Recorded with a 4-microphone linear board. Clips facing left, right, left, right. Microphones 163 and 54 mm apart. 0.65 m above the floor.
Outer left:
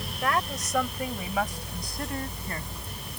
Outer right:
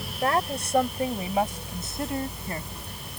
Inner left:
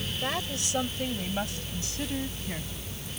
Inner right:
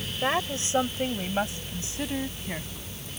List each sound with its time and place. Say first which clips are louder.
0.2 s a woman speaking: outer right 3 dB, inner right 7 dB; 35° right (ahead or behind); by 2.9 s 20° right (ahead or behind)